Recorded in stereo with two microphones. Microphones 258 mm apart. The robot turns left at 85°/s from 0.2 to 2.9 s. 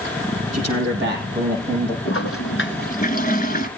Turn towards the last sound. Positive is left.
turn(degrees=45)